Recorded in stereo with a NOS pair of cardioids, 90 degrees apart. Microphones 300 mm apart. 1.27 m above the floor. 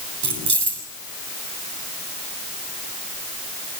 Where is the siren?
No siren in this recording.